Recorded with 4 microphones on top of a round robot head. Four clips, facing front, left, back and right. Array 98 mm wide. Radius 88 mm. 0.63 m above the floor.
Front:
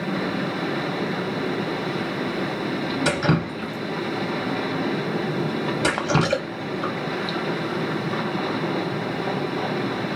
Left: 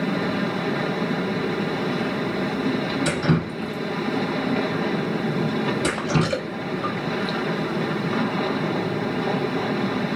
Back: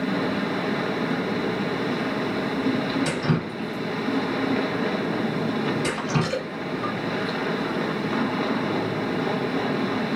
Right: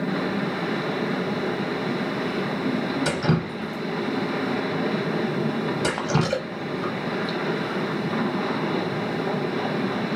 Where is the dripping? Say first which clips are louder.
Left 1 dB, front 3 dB; 15° right, 0.5 m.